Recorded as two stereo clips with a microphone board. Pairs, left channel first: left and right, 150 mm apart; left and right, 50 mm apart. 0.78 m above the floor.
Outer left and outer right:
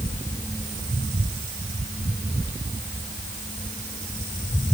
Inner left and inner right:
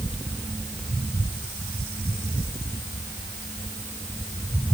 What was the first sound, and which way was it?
Only background noise.